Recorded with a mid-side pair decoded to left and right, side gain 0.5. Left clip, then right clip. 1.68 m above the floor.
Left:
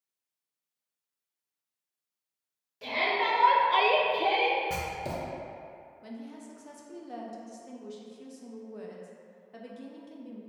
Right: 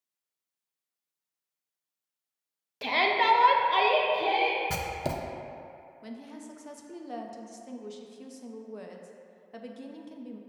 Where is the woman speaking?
25° right, 0.6 m.